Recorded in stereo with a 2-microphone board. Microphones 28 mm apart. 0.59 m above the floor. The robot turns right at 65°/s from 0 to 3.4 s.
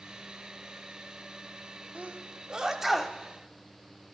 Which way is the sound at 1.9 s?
55° right (ahead or behind).